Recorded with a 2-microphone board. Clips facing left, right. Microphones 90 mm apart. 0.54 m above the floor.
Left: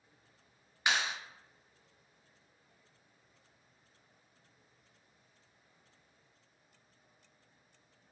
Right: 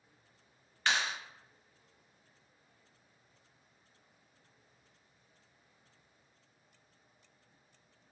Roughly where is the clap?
Centre.